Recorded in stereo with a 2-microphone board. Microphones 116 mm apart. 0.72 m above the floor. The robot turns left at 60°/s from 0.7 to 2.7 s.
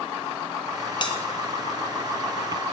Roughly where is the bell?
Left.